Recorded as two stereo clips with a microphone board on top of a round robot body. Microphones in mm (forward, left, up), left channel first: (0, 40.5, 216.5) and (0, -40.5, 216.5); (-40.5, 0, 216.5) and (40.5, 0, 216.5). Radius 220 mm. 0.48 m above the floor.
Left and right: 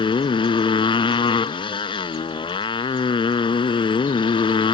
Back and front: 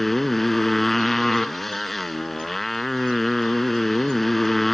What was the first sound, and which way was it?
A motorcycle, 90° left.